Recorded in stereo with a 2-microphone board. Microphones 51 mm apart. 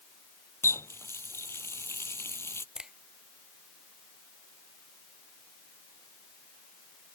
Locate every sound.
0.6 s a running tap: 60° left (ahead or behind)
2.8 s a finger snap: 15° right (ahead or behind)